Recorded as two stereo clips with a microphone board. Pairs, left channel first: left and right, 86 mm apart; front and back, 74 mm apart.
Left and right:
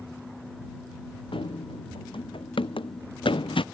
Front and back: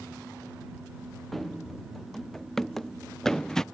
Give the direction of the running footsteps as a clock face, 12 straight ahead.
9 o'clock.